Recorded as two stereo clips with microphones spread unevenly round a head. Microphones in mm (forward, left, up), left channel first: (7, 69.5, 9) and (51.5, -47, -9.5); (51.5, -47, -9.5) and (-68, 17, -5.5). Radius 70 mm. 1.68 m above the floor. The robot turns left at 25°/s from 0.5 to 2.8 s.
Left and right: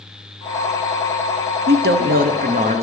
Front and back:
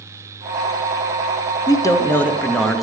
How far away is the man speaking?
About 0.7 m.